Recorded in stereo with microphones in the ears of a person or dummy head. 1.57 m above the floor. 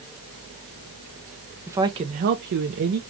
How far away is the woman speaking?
About 0.7 m.